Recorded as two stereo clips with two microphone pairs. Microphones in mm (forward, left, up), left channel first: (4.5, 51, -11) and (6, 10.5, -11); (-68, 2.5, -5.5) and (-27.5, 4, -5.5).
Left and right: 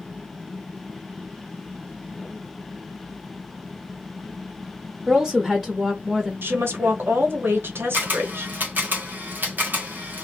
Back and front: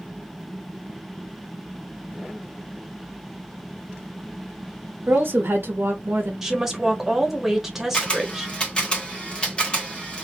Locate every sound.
5.1 s a woman speaking: 5° right, 0.8 m
6.4 s a woman speaking: 85° right, 1.0 m
7.9 s a camera shutter: 120° right, 1.2 m